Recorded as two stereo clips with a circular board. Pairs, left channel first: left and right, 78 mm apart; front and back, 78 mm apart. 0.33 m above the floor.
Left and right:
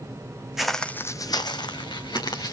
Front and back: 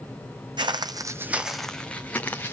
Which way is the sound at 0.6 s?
175° right.